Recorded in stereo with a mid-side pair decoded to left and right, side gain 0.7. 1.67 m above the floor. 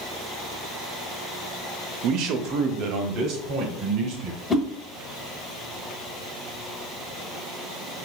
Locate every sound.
2.0 s a man speaking: 60° right, 0.6 m; by 4.4 s 55° right, 1.9 m
4.5 s a whoosh: 10° left, 0.9 m